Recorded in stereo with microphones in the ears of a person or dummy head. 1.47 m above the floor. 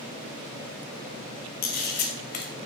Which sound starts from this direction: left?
A camera shutter, at 1.6 s.